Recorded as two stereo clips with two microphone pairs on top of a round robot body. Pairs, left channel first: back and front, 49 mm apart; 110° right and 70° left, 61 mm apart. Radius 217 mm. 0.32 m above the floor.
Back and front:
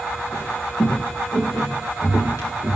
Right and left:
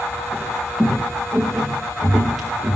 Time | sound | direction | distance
0.3 | footsteps | 170° left | 3 m